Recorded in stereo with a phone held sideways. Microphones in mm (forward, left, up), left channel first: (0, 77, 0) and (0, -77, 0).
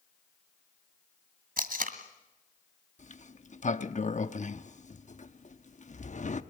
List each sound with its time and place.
1.6 s tape being pulled: 70° right (ahead or behind), 2.0 m
3.0 s a sliding door: 55° left (ahead or behind), 0.8 m